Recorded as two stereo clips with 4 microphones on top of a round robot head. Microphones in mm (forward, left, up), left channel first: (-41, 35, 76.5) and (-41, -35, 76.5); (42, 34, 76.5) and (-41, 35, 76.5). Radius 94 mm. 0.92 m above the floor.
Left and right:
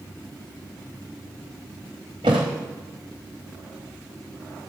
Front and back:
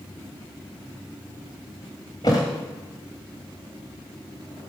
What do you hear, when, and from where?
2.2 s a thud: 60° right, 0.9 m